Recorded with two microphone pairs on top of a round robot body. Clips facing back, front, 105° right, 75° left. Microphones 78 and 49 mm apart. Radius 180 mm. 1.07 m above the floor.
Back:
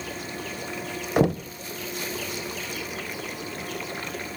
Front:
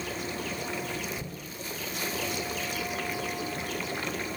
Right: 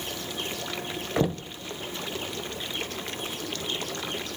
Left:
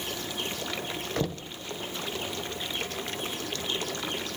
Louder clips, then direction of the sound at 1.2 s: Back 18 dB, right 7 dB; straight behind.